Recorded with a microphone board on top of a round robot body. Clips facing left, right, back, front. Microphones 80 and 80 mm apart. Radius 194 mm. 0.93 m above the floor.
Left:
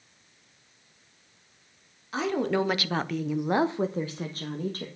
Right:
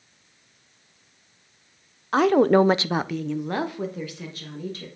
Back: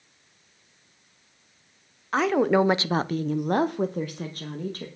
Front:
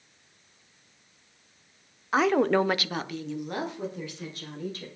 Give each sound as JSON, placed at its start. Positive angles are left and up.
{"t": 2.1, "sound": "a woman speaking", "azimuth_deg": -85, "distance_m": 1.0}